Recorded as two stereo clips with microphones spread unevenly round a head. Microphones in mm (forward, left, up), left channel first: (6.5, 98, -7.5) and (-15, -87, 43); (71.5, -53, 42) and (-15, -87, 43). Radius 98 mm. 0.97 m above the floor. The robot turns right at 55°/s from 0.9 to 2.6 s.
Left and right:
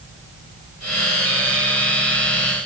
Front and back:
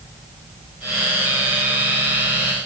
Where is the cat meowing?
I don't hear a cat meowing.